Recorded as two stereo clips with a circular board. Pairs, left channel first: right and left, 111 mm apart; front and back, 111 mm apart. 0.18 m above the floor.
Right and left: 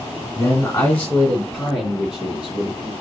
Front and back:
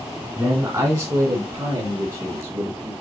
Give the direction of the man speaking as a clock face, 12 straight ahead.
5 o'clock.